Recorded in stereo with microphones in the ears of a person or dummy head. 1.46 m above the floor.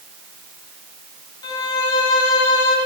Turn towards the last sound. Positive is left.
turn(degrees=25)  # may be behind; listen again after turning